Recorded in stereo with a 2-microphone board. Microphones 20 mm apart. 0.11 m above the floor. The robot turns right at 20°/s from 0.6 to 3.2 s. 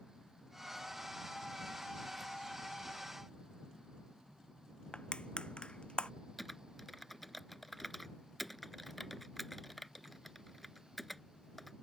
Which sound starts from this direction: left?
Crushing, at 4.9 s.